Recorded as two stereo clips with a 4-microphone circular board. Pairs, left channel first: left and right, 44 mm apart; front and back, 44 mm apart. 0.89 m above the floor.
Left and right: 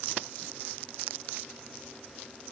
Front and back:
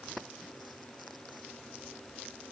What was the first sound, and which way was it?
Only background noise.